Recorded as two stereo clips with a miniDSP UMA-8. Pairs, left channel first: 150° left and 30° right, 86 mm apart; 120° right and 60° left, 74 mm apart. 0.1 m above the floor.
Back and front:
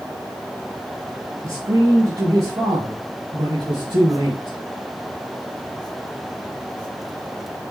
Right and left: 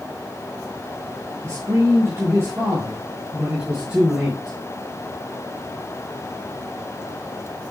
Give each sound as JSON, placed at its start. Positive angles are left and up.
{"t": 1.4, "sound": "a man speaking", "azimuth_deg": 15, "distance_m": 3.0}